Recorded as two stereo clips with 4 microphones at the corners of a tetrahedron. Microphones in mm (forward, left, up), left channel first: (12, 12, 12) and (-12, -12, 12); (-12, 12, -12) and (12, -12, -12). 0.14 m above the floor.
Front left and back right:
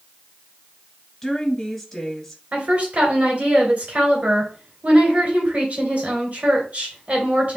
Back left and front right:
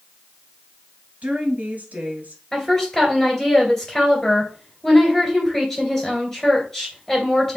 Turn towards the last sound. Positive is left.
turn(degrees=-150)